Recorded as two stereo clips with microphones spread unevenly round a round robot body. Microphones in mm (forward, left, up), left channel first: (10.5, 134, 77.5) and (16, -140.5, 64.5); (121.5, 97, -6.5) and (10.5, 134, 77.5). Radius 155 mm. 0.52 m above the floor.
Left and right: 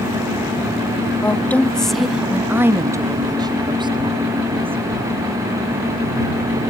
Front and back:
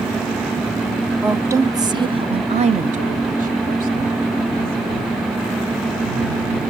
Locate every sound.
1.2 s a woman speaking: 15° left; by 5.2 s 155° right